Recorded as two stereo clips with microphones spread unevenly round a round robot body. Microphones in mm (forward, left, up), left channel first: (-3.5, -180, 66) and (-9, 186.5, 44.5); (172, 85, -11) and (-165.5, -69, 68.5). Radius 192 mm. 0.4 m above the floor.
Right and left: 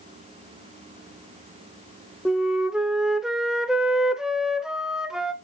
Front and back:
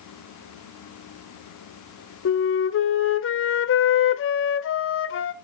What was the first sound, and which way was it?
A flute, 5° left.